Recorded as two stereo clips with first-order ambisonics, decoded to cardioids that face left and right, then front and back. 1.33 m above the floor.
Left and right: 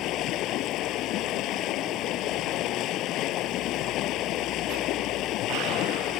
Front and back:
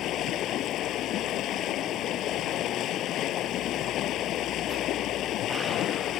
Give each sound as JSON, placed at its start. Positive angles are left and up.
{"t": 0.0, "sound": "running water", "azimuth_deg": 50}